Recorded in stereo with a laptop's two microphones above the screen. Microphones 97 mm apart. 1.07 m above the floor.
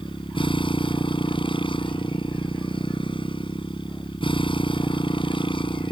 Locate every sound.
0.0 s a motorcycle: 55° left (ahead or behind)